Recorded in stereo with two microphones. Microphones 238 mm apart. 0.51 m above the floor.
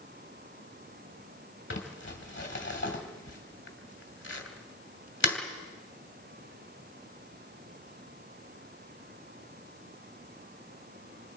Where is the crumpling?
55° left (ahead or behind), 2 m.